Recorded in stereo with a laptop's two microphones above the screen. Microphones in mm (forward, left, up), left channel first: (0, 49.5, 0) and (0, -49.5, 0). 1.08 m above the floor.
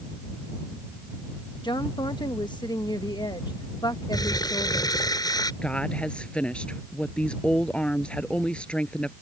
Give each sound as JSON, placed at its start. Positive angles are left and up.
{"t": 1.6, "sound": "a woman speaking", "side_deg": 50}
{"t": 4.1, "sound": "crumpling", "side_deg": 40}
{"t": 5.6, "sound": "a woman speaking", "side_deg": 10}